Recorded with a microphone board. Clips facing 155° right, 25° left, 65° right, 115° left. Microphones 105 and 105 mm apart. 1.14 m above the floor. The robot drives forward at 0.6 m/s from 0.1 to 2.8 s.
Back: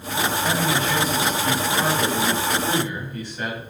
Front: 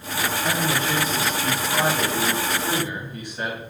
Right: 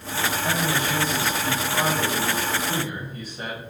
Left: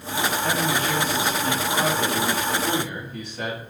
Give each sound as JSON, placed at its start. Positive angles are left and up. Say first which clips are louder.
{"t": 0.4, "sound": "a man speaking", "louder": "even, left 1 dB", "azimuth_deg": 70, "distance_m": 3.5}